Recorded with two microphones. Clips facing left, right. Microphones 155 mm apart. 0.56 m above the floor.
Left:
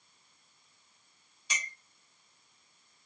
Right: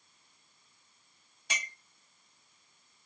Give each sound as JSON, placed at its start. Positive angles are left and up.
{"t": 1.5, "sound": "a clink", "side_deg": -60, "distance_m": 1.0}